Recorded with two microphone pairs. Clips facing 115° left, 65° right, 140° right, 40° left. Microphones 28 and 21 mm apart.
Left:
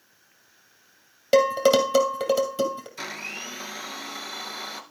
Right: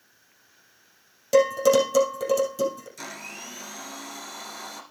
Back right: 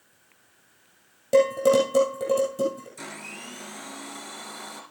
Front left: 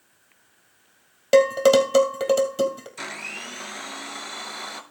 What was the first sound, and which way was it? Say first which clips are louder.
Dishes clattering: even, front left 3 dB; 65° left.